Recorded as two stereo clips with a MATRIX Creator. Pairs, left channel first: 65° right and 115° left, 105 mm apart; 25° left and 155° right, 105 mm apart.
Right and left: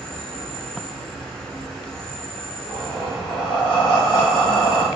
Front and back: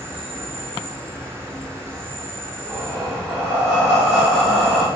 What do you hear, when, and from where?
0.0 s an insect: 145° right, 1.1 m
2.6 s breathing: 70° right, 2 m